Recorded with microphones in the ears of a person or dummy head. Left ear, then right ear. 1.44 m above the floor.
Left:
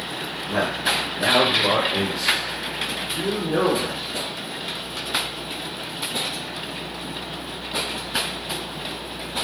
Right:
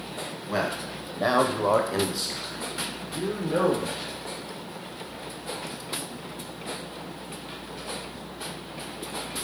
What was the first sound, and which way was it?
A man speaking, 25° right (ahead or behind).